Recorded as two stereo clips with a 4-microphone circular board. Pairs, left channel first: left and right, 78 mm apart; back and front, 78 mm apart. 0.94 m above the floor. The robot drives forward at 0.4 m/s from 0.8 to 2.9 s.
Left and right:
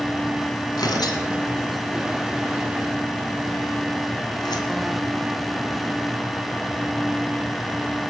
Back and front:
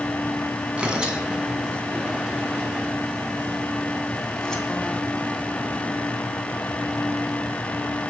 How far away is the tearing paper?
About 2.5 m.